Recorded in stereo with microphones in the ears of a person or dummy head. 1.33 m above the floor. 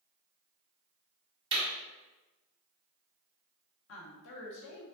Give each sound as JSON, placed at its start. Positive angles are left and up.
{"t": 1.5, "sound": "a clap", "side_deg": -20, "distance_m": 2.0}
{"t": 3.9, "sound": "a woman speaking", "side_deg": 65, "distance_m": 1.0}